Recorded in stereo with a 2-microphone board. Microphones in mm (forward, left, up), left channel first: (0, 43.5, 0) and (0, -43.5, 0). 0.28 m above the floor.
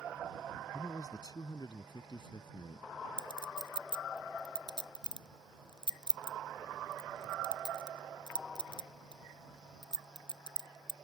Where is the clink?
55° left (ahead or behind).